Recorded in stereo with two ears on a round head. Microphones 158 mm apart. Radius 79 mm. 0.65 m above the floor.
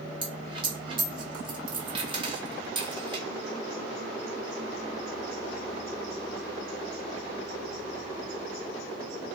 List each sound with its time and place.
0.2 s a dropped coin: 30° right (ahead or behind), 1.6 m